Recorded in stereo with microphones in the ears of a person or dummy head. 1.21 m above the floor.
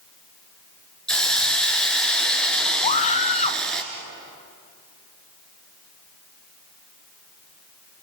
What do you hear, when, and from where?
1.1 s a hiss: 5° left (ahead or behind), 3 m
2.8 s a scream: 40° left (ahead or behind), 0.7 m